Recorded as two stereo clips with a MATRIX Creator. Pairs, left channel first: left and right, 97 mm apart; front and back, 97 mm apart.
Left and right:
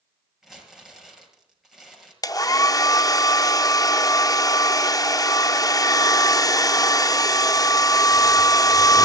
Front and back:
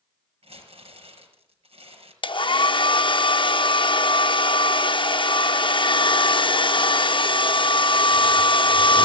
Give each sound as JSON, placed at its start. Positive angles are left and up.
{"t": 0.4, "sound": "crumpling", "azimuth_deg": 180, "distance_m": 6.0}
{"t": 2.2, "sound": "a hair dryer", "azimuth_deg": 35, "distance_m": 0.5}